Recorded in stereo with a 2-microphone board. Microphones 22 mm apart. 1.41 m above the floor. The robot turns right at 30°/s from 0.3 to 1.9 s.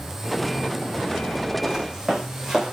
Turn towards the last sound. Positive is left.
turn(degrees=-20)  # may be behind; listen again after turning